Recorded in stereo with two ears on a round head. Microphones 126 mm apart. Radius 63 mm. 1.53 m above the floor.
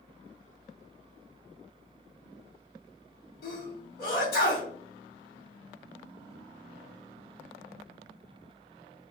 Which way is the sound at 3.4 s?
75° left (ahead or behind).